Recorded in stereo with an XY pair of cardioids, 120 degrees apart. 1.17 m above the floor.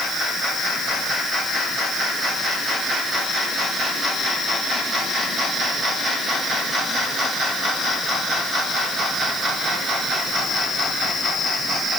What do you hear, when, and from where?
Only background noise.